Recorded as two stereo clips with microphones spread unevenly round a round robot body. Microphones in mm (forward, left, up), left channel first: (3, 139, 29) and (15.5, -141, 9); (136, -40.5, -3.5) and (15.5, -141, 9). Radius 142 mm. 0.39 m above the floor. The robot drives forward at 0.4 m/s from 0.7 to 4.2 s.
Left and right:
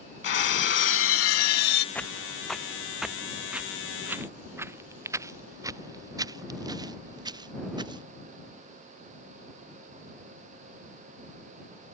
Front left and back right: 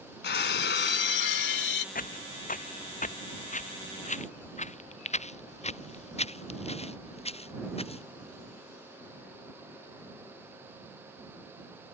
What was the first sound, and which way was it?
Breaking glass, 40° left.